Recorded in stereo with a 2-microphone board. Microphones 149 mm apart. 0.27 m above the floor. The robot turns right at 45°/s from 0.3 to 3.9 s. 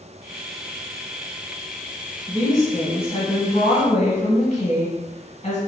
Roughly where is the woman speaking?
Ahead left.